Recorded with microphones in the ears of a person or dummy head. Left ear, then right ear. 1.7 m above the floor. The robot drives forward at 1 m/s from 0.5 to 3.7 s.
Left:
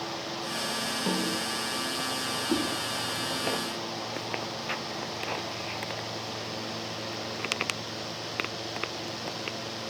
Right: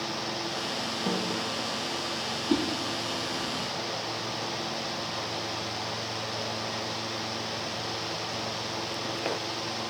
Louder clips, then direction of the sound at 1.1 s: Even; centre (ahead or behind).